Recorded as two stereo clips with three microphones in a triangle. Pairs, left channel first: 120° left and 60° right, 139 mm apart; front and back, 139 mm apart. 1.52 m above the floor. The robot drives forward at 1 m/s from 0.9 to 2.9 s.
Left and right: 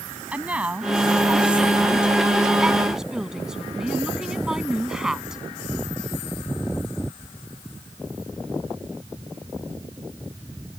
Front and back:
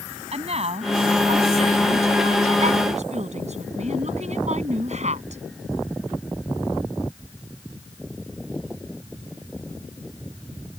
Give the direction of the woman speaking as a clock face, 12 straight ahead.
5 o'clock.